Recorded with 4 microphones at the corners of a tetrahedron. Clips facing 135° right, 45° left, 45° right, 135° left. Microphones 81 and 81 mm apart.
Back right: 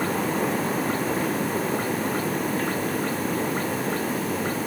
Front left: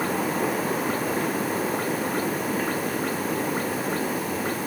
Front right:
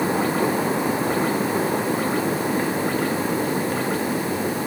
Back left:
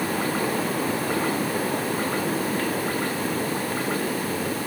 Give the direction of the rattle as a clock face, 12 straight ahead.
No rattle in this recording.